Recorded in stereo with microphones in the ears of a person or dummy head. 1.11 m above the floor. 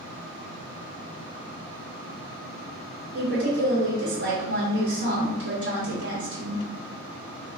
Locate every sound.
3.1 s a woman speaking: 70° right (ahead or behind), 1.0 m